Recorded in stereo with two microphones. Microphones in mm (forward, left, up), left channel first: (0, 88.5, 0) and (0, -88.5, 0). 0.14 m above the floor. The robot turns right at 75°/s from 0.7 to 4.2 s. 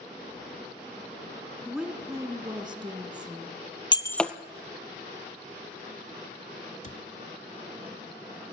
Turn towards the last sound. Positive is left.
turn(degrees=45)  # may be behind; listen again after turning